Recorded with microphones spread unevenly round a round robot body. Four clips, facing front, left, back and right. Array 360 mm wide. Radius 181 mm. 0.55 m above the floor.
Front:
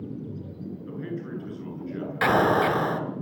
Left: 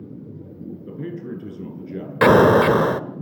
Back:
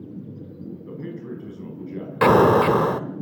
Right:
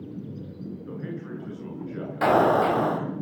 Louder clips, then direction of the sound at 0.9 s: Left 5 dB, even; 100° left.